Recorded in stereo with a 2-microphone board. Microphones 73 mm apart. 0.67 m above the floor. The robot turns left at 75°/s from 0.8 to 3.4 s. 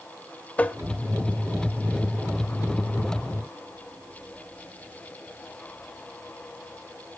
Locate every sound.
0.6 s tapping: 20° left (ahead or behind), 1.0 m